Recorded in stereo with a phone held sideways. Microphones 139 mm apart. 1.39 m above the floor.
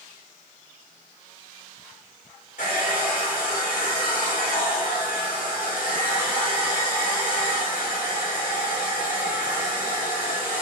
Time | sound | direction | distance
2.6 | a hair dryer | 75° left (ahead or behind) | 1.7 m